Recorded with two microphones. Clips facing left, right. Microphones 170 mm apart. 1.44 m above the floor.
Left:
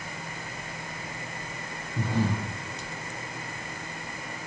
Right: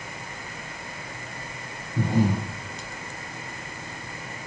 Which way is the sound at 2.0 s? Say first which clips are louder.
Right 5 dB; 10° right (ahead or behind).